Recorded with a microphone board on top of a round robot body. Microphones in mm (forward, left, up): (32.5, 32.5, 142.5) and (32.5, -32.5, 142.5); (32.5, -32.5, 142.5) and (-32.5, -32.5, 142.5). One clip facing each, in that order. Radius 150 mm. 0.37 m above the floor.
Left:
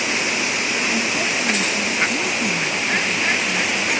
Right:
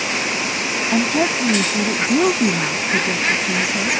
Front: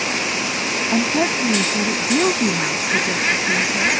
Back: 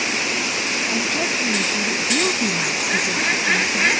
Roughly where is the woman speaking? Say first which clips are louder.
Right 4 dB, front 7 dB; ahead right.